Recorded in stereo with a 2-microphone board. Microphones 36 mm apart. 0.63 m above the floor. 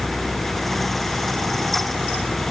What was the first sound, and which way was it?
Only background noise.